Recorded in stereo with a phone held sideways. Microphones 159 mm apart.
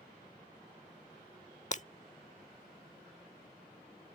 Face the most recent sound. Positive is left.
turn(degrees=50)  # may be behind; listen again after turning